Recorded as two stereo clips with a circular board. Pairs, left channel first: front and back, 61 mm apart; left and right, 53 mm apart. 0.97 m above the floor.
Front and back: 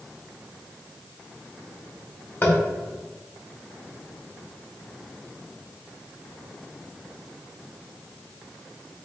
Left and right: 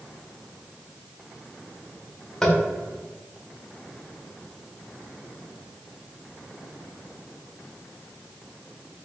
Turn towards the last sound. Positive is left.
turn(degrees=15)